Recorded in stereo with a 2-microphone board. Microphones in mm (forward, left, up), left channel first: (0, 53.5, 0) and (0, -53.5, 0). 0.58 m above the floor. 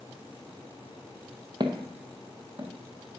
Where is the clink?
No clink in this recording.